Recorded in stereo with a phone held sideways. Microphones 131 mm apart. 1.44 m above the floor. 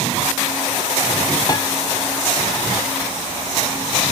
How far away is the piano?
About 0.7 m.